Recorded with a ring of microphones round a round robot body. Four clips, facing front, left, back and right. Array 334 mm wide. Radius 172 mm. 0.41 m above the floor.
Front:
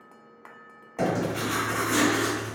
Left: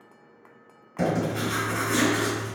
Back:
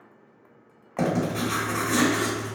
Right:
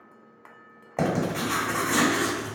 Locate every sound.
1.0 s writing: 110° right, 1.3 m